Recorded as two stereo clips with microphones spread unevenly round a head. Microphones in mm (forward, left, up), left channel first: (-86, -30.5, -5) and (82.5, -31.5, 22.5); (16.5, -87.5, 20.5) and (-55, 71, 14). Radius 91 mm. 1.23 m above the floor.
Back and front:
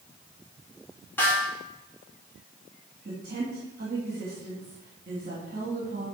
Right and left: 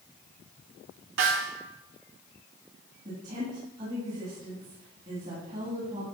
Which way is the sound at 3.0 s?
55° left.